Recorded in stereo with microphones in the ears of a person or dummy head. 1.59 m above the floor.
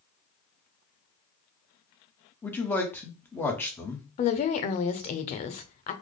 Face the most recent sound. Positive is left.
turn(degrees=40)  # may be behind; listen again after turning